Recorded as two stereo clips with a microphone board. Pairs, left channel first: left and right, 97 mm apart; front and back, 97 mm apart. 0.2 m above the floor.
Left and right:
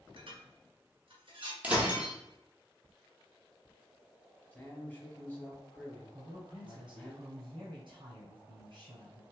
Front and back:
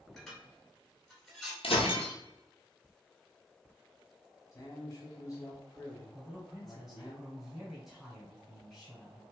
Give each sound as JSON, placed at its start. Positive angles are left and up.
{"t": 0.2, "sound": "dishes clattering", "azimuth_deg": -85, "distance_m": 1.4}
{"t": 1.6, "sound": "breaking glass", "azimuth_deg": -15, "distance_m": 0.8}
{"t": 4.5, "sound": "a man speaking", "azimuth_deg": 25, "distance_m": 1.4}
{"t": 6.1, "sound": "a man speaking", "azimuth_deg": -90, "distance_m": 2.0}